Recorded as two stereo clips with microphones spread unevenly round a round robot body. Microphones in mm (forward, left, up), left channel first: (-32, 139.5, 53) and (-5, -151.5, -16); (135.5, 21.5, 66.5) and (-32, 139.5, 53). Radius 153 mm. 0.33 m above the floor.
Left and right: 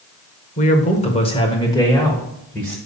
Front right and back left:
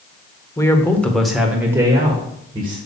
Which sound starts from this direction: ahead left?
A man speaking, at 0.6 s.